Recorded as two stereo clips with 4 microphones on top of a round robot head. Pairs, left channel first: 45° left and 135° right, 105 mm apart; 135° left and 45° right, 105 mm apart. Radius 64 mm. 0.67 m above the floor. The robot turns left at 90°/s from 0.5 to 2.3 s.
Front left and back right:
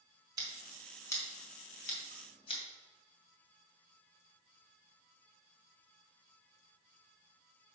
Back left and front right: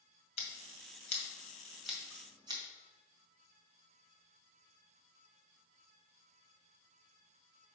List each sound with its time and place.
0.4 s scissors: 165° left, 1.9 m; by 2.6 s 5° left, 1.9 m